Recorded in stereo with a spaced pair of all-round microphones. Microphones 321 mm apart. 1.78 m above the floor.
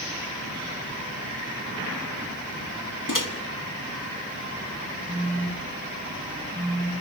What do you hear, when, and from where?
3.1 s a microwave: 75° left (ahead or behind), 1.6 m
5.1 s a phone buzzing: 30° right (ahead or behind), 6 m